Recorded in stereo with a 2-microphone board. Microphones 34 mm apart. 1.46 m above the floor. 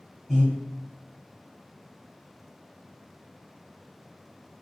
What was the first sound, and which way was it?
Breathing, 20° right (ahead or behind).